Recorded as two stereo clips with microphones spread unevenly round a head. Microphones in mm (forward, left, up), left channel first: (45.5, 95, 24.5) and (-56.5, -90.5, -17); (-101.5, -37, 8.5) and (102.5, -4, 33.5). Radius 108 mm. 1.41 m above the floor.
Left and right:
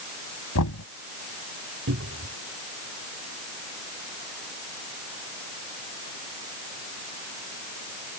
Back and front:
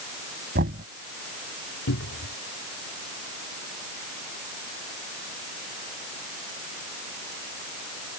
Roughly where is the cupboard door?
Behind right.